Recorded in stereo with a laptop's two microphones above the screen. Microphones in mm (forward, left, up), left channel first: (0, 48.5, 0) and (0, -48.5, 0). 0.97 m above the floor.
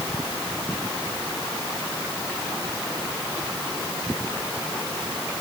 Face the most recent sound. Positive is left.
No sound to turn to.